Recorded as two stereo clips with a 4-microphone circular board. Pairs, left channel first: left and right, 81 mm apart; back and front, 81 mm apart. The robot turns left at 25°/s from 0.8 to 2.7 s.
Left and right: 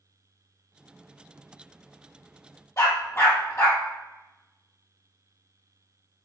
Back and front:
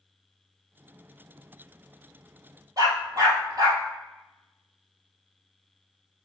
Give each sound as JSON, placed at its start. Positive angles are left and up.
{"t": 2.8, "sound": "a dog barking", "azimuth_deg": 40, "distance_m": 3.0}